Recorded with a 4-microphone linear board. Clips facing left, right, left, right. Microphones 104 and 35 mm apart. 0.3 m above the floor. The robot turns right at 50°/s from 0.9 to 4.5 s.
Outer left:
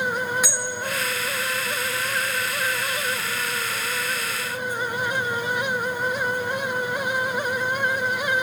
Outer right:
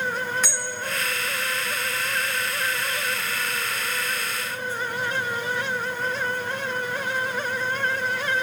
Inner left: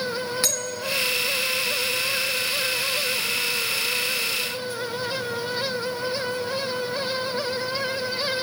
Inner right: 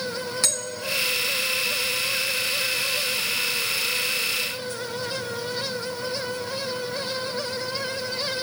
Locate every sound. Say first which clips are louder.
0.4 s a bell: outer left 2 dB, inner left 1 dB; 10° left (ahead or behind), 1.3 m